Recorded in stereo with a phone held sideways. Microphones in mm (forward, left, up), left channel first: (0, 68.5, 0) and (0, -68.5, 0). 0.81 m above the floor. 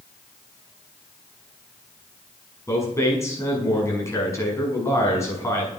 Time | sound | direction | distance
2.7 | a man speaking | 20° left (ahead or behind) | 6.5 m